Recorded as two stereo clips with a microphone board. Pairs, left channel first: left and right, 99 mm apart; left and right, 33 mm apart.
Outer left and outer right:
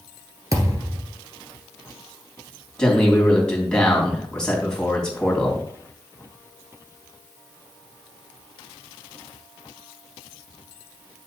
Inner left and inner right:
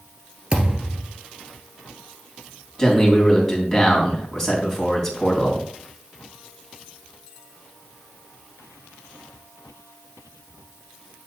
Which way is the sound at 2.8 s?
10° left (ahead or behind).